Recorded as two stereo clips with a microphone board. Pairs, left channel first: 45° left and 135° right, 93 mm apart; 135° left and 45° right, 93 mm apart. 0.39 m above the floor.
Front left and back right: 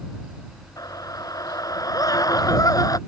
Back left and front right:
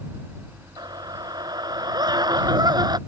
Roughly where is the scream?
Ahead.